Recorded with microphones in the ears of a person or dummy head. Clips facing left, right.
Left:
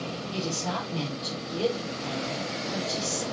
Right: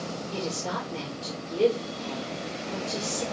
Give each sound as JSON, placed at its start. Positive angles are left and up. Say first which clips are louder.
{"t": 0.3, "sound": "a woman speaking", "louder": "left 1 dB", "side_deg": -45, "distance_m": 5.0}